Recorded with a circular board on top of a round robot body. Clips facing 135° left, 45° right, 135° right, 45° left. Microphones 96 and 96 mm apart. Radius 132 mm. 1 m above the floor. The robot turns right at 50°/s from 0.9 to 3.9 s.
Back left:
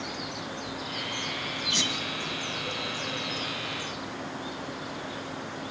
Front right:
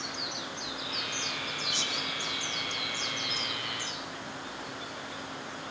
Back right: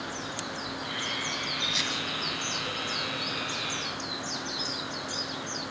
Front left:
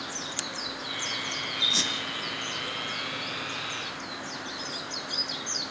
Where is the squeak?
100° left, 2.5 m; by 1.9 s 110° left, 2.5 m.